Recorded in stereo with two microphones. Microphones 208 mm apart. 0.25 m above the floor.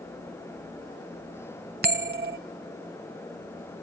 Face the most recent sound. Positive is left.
turn(degrees=-50)  # may be behind; listen again after turning